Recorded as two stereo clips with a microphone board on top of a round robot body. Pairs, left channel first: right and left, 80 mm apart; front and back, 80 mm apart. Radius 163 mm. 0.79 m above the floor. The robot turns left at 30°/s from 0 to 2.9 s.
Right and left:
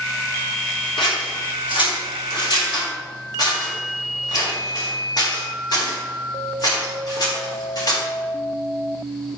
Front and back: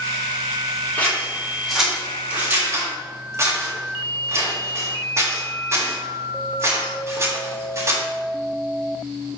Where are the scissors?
65° right, 3.5 m; by 8.0 s 125° right, 3.5 m.